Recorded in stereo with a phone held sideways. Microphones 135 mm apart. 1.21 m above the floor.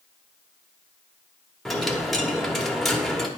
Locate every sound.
1.6 s a dropped coin: centre (ahead or behind), 1.0 m